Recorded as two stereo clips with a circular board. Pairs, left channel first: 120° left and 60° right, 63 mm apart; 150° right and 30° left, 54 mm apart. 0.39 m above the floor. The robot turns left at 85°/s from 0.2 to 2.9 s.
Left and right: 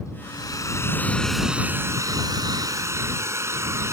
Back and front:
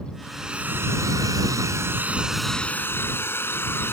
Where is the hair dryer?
125° left; by 3.9 s 100° right.